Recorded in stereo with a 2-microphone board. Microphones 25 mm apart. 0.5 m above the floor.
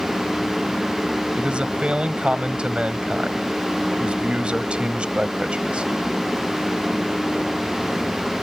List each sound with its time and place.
1.4 s a man speaking: 50° right (ahead or behind)